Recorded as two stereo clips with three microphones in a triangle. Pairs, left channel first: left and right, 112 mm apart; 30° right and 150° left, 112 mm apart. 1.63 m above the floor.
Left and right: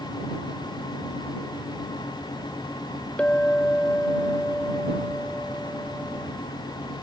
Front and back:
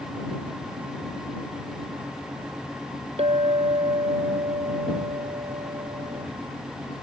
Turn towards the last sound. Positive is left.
turn(degrees=170)